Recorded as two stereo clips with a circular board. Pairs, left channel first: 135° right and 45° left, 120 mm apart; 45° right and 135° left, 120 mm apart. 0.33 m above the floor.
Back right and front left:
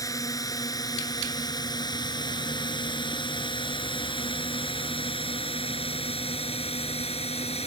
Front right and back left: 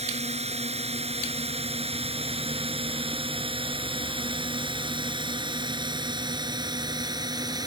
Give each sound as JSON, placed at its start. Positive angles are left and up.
{"t": 0.0, "sound": "a drone", "azimuth_deg": 165}